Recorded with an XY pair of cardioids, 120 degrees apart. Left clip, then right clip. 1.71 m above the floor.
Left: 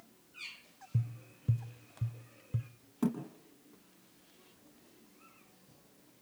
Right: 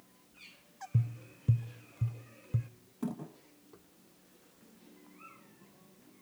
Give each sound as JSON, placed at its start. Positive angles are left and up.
{"t": 0.9, "sound": "tapping", "azimuth_deg": -20, "distance_m": 0.6}
{"t": 3.0, "sound": "a thud", "azimuth_deg": 35, "distance_m": 7.5}